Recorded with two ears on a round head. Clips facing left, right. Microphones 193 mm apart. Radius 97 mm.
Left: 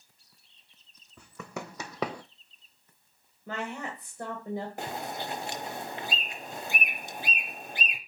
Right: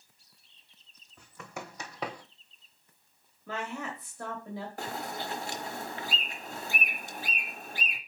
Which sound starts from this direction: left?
Running footsteps, at 1.2 s.